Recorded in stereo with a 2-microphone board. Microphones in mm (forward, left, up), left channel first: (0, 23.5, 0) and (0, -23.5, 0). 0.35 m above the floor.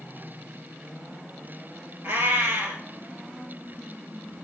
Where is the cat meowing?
60° right (ahead or behind), 1.0 m.